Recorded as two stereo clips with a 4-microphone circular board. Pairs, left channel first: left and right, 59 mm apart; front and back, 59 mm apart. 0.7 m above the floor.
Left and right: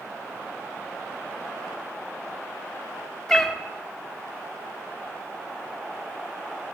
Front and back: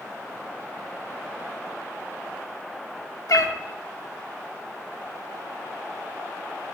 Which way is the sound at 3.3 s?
10° left.